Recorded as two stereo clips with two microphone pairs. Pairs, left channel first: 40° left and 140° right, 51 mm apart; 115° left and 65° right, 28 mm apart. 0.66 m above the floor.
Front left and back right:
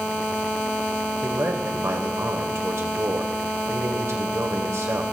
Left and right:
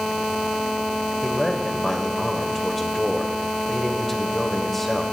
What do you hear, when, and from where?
1.2 s a man speaking: 165° right, 2.5 m